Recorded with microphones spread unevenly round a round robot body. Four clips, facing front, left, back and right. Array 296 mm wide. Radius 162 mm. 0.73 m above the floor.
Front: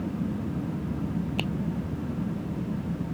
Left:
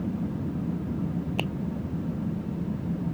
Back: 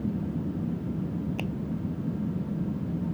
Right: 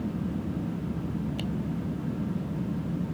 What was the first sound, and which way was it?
A finger snap, 65° left.